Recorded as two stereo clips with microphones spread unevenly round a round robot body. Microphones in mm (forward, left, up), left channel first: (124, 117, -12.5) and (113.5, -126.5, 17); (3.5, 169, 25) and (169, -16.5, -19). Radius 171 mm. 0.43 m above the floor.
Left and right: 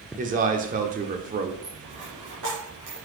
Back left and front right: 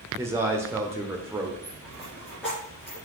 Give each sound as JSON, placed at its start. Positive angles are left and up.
{"t": 0.2, "sound": "a man speaking", "azimuth_deg": -85, "distance_m": 0.9}
{"t": 1.6, "sound": "a dropped coin", "azimuth_deg": -140, "distance_m": 3.0}